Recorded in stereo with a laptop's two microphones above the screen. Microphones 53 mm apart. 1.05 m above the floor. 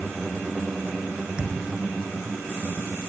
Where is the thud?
15° right (ahead or behind), 7 m.